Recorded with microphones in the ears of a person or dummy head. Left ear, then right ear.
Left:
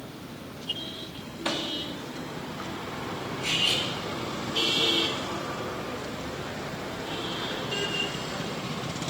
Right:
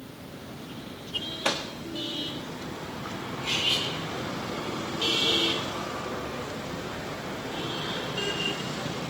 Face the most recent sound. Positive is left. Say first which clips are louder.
# left 1 dB
turn(degrees=50)  # may be behind; listen again after turning